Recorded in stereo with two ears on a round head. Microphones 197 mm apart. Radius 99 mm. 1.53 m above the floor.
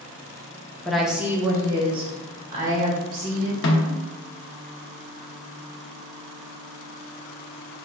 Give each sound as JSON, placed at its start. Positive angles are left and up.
{"t": 0.8, "sound": "a woman speaking", "side_deg": 5, "distance_m": 0.9}
{"t": 3.6, "sound": "a snare drum", "side_deg": 55, "distance_m": 0.9}